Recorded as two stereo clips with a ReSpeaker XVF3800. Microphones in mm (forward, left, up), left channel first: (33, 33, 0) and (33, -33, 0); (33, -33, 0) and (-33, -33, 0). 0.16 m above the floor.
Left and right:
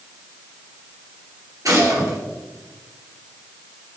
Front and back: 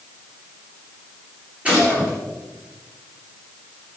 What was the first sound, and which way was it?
A gunshot, 110° right.